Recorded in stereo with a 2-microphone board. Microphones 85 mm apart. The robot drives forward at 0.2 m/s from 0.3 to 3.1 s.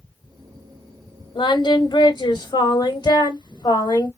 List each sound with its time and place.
1.4 s singing: 55° left (ahead or behind), 1.0 m; by 4.1 s 45° left (ahead or behind), 1.2 m